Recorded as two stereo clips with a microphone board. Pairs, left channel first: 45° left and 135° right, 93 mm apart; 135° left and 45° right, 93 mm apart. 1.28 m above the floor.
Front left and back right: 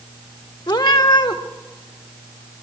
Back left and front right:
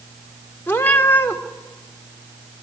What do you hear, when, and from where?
0.7 s a cat meowing: 70° left, 1.6 m